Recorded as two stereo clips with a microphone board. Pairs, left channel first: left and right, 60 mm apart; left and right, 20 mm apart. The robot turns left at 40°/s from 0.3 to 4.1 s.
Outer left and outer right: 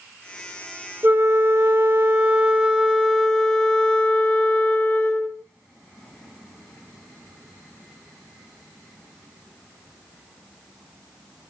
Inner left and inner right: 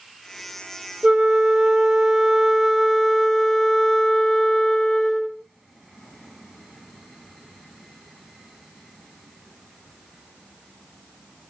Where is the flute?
90° right, 0.7 m; by 5.4 s 145° left, 0.7 m.